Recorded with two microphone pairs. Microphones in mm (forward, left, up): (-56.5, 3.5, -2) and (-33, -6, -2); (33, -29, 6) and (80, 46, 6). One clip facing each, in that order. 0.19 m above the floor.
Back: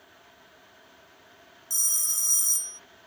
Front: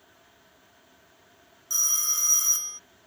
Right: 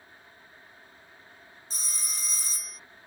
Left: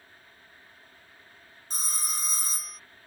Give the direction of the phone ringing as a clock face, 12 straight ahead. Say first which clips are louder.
Front 3 dB, left 6 dB; 11 o'clock.